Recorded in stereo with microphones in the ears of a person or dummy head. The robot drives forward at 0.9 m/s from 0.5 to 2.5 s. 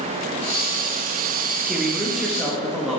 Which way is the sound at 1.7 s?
5° right (ahead or behind).